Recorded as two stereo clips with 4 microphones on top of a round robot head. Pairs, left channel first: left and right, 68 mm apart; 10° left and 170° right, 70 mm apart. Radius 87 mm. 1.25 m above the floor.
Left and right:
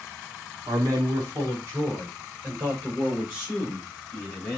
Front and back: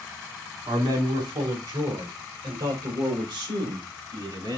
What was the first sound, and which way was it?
A man speaking, 140° right.